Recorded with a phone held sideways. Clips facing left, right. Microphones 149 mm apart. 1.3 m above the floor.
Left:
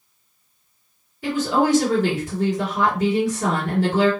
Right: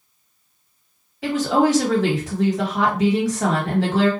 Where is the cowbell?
I don't hear a cowbell.